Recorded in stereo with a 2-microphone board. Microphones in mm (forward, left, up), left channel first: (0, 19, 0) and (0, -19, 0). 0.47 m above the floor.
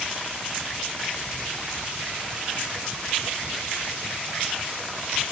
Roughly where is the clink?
No clink in this recording.